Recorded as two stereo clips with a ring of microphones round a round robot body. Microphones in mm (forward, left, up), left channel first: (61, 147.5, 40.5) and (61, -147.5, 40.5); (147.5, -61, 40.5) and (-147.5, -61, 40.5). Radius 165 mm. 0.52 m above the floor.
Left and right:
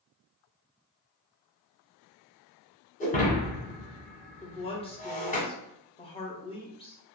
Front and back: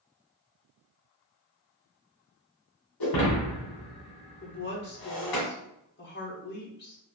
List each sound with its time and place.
3.0 s breaking glass: 25° left, 1.6 m
4.4 s a woman speaking: 30° left, 1.1 m